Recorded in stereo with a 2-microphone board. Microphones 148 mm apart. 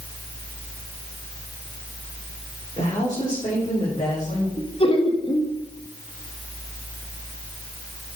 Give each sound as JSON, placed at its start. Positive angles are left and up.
{"t": 2.8, "sound": "a woman speaking", "side_deg": 35, "distance_m": 4.0}
{"t": 4.6, "sound": "laughter", "side_deg": 40, "distance_m": 1.8}